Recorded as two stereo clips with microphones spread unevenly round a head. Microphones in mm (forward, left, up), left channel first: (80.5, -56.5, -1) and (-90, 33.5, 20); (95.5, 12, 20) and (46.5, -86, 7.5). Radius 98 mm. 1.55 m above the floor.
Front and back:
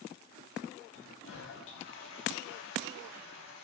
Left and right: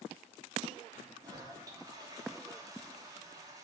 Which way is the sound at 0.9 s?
55° right.